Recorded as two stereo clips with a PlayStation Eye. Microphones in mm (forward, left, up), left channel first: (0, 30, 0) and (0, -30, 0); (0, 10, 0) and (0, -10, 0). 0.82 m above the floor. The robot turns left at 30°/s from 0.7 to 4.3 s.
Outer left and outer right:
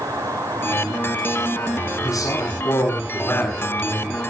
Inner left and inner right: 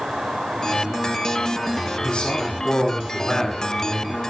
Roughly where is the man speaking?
Left.